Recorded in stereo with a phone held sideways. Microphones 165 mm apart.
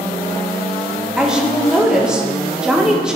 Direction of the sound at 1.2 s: 5° right (ahead or behind).